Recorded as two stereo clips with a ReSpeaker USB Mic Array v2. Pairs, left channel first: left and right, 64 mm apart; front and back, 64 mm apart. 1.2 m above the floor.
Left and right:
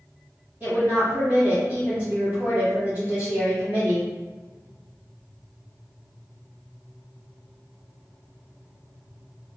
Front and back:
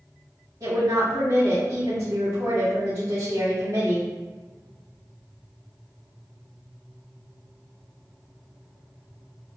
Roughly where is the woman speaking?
Behind right.